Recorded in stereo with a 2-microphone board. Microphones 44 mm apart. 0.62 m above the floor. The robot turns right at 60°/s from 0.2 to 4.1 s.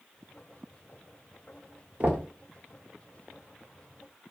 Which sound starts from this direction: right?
Knocking, at 2.0 s.